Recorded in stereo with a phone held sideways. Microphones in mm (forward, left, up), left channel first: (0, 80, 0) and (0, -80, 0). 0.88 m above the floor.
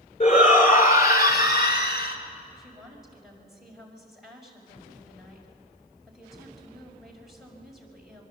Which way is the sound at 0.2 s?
50° left (ahead or behind).